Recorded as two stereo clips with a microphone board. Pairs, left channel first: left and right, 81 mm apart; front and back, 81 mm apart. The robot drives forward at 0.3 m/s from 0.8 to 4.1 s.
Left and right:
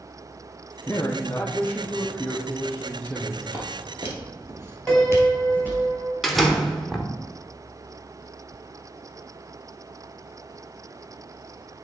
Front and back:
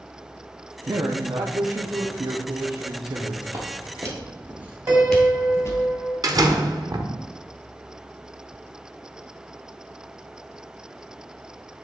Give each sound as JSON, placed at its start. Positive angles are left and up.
{"t": 0.9, "sound": "a man speaking", "azimuth_deg": 140, "distance_m": 0.6}
{"t": 3.5, "sound": "footsteps", "azimuth_deg": -150, "distance_m": 2.5}
{"t": 4.9, "sound": "a piano", "azimuth_deg": 160, "distance_m": 1.7}
{"t": 6.2, "sound": "a door slam", "azimuth_deg": 175, "distance_m": 0.8}